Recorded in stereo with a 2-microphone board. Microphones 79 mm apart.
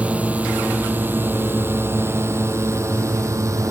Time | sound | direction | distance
0.0 | a drone | 15° right (ahead or behind) | ?